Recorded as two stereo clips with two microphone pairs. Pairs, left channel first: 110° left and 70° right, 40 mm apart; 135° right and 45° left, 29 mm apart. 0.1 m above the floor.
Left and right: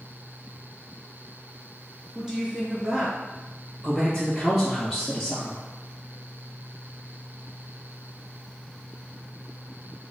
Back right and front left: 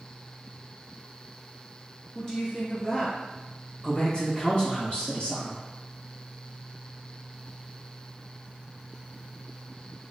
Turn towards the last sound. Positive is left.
turn(degrees=-150)